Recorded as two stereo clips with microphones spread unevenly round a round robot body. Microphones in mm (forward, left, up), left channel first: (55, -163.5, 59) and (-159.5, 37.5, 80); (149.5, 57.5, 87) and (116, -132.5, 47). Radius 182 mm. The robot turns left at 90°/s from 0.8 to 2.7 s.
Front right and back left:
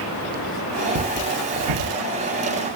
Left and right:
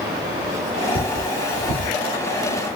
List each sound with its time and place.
0.9 s cutlery clinking: 165° right, 0.8 m; by 1.9 s 110° left, 0.8 m